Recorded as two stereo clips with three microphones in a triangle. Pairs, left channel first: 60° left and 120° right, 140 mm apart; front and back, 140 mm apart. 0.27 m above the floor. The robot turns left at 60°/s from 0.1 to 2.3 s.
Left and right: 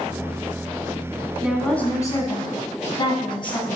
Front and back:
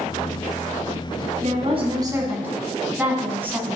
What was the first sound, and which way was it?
A woman speaking, 160° left.